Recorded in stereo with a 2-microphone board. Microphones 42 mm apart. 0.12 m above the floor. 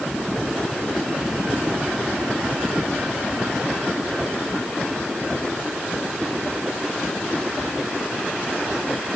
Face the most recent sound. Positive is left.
No sound to turn to.